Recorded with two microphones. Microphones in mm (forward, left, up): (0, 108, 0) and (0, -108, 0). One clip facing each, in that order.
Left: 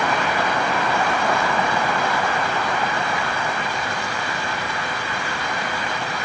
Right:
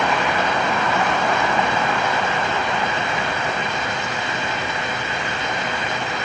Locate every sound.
Only background noise.